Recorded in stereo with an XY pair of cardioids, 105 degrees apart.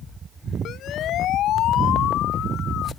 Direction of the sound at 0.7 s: 70° left.